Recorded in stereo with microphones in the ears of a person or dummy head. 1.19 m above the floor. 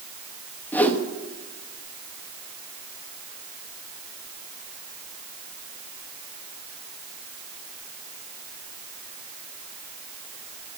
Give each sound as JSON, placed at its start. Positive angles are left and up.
{"t": 0.7, "sound": "a whoosh", "side_deg": 5, "distance_m": 1.2}